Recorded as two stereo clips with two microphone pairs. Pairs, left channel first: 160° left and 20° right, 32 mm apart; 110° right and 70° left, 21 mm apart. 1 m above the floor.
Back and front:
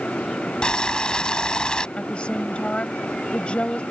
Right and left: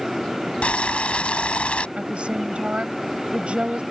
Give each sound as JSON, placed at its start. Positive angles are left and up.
{"t": 0.6, "sound": "boiling", "azimuth_deg": -130}
{"t": 2.0, "sound": "a woman speaking", "azimuth_deg": 105}